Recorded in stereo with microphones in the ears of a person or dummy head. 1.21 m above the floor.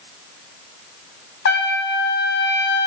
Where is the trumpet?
60° left (ahead or behind), 0.6 m.